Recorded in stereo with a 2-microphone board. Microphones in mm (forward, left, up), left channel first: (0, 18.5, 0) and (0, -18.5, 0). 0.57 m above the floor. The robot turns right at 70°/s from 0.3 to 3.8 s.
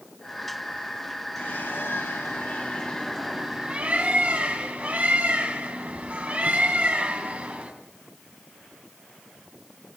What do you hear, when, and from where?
1.4 s a bird: 50° left, 2 m; by 7.7 s 140° right, 2 m